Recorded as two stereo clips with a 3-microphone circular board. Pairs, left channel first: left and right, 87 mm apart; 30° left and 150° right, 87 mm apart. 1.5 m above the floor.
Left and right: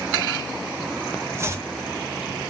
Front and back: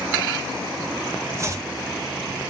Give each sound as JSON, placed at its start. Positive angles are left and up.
{"t": 1.4, "sound": "chopping", "azimuth_deg": -125, "distance_m": 0.8}